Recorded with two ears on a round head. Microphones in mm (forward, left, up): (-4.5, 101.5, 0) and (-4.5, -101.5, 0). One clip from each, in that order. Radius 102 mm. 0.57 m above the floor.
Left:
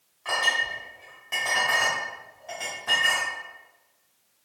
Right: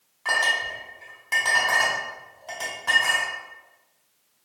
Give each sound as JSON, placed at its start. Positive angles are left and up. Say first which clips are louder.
{"t": 0.2, "sound": "a clink", "louder": "right 2 dB", "side_deg": -30, "distance_m": 1.5}